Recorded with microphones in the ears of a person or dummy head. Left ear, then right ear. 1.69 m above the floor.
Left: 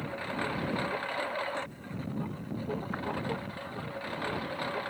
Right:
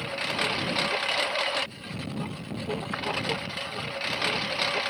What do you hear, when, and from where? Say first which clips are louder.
0.0 s a lawn mower: right 7 dB; 80° right; by 4.9 s 75° right (ahead or behind)